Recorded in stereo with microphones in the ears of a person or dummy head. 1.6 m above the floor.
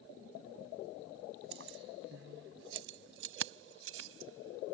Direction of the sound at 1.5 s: 65° right (ahead or behind).